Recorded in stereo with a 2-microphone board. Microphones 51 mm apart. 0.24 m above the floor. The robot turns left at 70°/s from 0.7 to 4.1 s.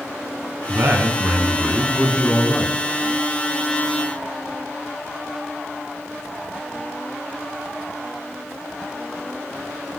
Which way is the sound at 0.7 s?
95° right.